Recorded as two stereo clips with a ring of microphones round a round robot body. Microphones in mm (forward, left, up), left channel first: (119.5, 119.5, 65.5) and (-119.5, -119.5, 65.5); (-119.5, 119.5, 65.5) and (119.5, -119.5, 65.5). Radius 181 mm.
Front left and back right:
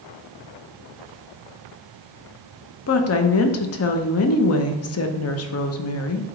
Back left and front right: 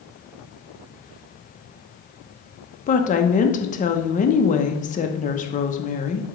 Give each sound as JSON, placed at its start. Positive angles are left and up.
{"t": 2.9, "sound": "a woman speaking", "azimuth_deg": 75, "distance_m": 0.8}